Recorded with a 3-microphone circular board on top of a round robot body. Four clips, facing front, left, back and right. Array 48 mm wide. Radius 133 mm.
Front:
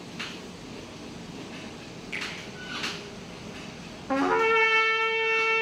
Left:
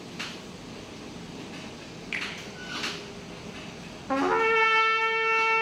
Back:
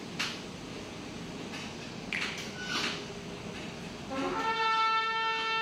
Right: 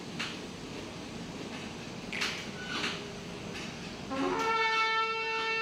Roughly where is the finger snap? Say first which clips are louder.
Left 3 dB, even; behind left.